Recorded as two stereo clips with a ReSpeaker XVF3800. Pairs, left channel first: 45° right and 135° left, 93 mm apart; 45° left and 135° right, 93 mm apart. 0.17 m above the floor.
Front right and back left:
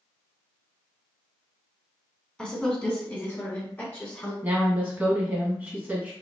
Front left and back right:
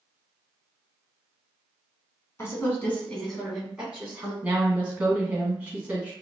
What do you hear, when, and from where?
2.4 s a woman speaking: 25° left, 1.3 m; by 4.3 s 90° right, 1.4 m
4.4 s a woman speaking: 175° left, 1.4 m